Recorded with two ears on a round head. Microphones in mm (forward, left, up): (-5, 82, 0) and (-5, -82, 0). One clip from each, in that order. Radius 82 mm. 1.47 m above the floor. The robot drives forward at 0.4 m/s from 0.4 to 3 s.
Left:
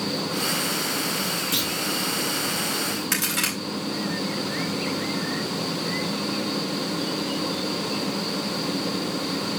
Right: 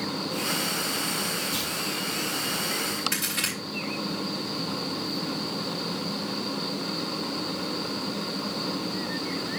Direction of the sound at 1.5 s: 70° left (ahead or behind).